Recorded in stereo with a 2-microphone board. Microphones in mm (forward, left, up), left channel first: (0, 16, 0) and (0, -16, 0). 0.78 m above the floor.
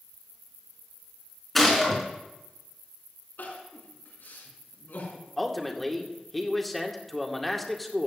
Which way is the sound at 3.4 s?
80° left.